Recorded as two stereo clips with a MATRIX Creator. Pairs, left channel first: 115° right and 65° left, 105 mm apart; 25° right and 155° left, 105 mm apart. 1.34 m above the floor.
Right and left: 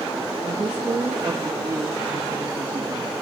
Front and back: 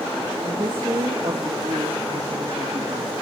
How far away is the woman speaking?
About 1.4 m.